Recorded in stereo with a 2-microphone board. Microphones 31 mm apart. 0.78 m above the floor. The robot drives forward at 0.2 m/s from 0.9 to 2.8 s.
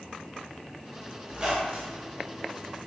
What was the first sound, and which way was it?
A squeak, 25° right (ahead or behind).